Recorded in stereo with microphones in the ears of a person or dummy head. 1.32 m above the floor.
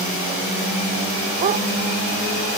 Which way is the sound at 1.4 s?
40° right (ahead or behind).